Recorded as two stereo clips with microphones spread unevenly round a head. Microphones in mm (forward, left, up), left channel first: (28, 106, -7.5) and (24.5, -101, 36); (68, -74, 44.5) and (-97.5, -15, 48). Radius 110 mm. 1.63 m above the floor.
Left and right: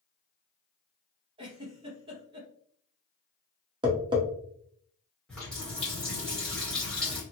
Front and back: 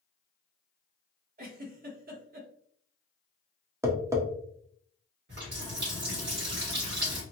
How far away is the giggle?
About 0.8 m.